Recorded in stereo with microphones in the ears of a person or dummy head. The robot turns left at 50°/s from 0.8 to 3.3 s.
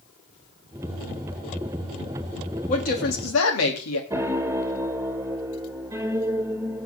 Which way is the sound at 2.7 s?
140° left.